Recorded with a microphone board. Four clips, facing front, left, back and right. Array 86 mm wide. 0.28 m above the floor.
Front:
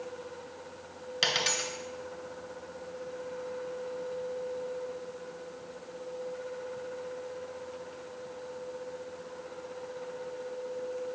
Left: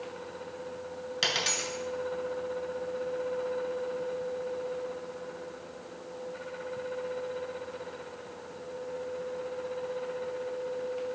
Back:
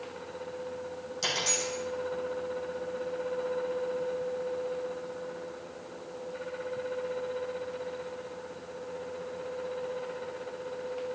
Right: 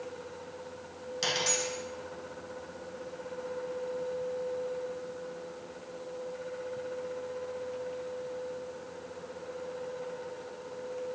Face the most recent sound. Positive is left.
turn(degrees=30)